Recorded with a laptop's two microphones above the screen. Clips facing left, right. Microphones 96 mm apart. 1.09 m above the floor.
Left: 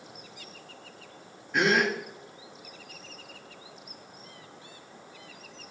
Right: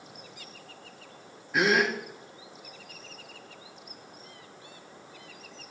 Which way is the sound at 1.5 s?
5° right (ahead or behind).